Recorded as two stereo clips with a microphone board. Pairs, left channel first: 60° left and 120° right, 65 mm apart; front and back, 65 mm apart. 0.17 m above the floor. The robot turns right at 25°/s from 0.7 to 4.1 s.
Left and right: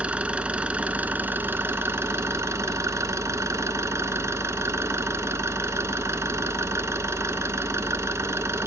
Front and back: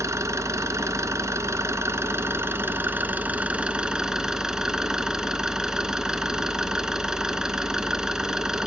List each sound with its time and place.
0.0 s an engine running: 175° left, 0.8 m; by 8.7 s 100° right, 0.8 m